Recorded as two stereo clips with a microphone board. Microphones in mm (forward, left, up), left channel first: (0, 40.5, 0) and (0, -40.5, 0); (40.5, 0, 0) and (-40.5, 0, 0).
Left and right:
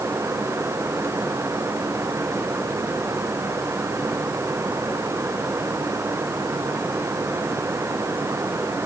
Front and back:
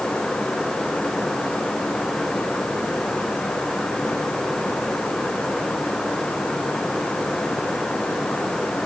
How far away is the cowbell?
No cowbell in this recording.